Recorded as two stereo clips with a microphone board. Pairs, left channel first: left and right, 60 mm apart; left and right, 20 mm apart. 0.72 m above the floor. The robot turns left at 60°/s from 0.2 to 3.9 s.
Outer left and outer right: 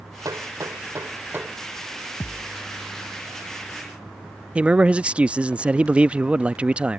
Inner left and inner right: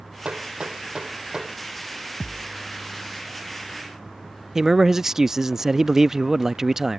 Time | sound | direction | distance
0.2 | hammering | 70° right (ahead or behind) | ?
2.2 | a thud | 50° left (ahead or behind) | ?
4.5 | a man speaking | 20° right (ahead or behind) | ?